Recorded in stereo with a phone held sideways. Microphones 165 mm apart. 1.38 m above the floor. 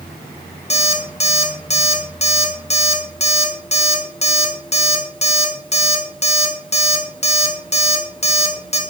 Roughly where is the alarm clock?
Left.